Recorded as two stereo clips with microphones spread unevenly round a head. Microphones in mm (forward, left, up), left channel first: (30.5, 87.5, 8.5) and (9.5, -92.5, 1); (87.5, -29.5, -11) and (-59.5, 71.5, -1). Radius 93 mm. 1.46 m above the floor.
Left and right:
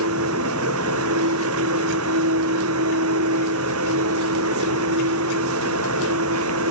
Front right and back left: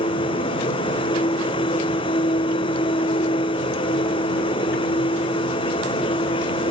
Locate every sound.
0.0 s a machine running: 100° right